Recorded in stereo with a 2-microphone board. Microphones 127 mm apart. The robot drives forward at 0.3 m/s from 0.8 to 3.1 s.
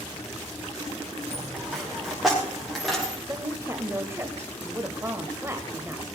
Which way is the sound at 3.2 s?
20° right (ahead or behind).